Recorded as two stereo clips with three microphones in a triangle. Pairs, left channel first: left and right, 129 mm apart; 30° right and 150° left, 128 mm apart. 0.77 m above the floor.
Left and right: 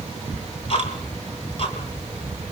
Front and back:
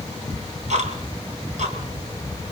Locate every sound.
0.3 s ticking: 130° left, 4.5 m